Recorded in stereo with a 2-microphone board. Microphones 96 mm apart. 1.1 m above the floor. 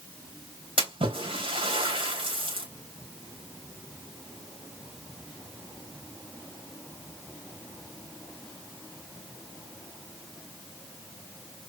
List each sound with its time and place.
0.8 s a splash: 75° right (ahead or behind), 4 m